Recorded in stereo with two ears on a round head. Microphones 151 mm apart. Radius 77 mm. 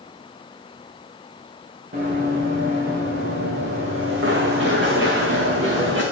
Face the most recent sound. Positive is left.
turn(degrees=-70)  # may be behind; listen again after turning